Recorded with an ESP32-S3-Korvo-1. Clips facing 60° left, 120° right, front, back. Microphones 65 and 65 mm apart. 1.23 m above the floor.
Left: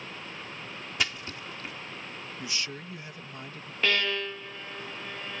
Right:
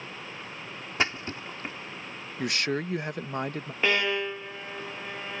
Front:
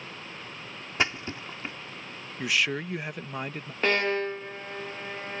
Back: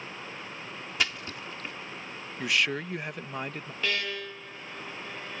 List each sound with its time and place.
1.0 s a splash: 60° right
2.4 s a man speaking: 85° right
3.8 s a violin: 45° right